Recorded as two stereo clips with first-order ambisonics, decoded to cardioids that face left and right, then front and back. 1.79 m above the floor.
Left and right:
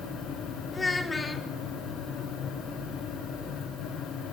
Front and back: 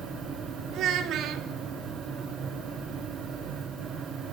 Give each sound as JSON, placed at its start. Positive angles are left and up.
{"t": 0.7, "sound": "a child speaking", "azimuth_deg": 160, "distance_m": 1.4}